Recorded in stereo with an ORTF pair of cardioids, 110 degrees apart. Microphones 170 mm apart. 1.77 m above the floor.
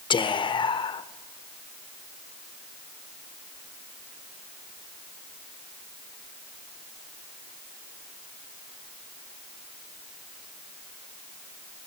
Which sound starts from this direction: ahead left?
Whispering, at 0.1 s.